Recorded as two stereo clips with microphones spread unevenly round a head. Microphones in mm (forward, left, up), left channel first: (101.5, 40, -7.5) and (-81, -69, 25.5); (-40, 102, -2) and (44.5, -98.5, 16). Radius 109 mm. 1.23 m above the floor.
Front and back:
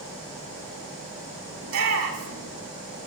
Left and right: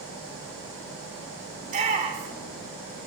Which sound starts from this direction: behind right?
A shout, at 1.6 s.